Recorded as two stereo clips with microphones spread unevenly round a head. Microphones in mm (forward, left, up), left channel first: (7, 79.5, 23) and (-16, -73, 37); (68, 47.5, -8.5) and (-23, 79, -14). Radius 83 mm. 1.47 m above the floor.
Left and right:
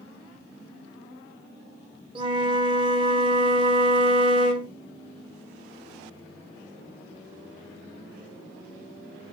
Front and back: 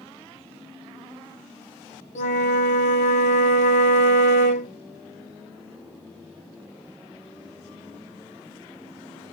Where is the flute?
35° right, 1.0 m.